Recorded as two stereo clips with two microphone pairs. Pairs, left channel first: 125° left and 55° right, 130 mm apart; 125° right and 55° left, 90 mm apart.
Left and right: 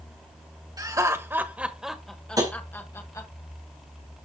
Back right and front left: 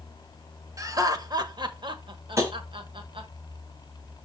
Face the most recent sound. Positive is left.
turn(degrees=5)